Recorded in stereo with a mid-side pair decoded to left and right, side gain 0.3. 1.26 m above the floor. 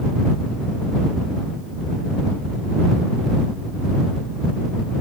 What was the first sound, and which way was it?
Only background noise.